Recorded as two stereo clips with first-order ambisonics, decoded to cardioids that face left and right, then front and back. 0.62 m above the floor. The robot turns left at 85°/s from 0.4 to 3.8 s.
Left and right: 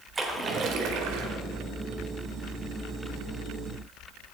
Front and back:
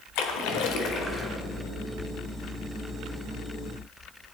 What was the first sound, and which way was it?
A splash, 15° right.